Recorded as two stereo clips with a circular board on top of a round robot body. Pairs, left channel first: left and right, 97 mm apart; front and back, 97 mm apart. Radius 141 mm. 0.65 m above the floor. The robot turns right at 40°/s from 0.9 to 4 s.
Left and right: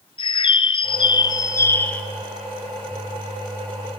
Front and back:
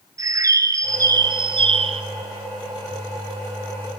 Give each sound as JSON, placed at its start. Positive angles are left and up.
{"t": 0.2, "sound": "a bird", "azimuth_deg": 125, "distance_m": 0.7}